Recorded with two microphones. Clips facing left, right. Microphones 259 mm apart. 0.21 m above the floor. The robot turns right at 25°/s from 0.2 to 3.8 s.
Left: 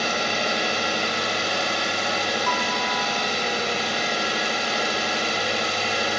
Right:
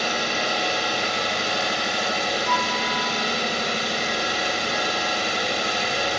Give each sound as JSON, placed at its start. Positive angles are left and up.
{"t": 0.0, "sound": "an engine running", "azimuth_deg": 150, "distance_m": 1.5}
{"t": 2.5, "sound": "a piano", "side_deg": -25, "distance_m": 1.3}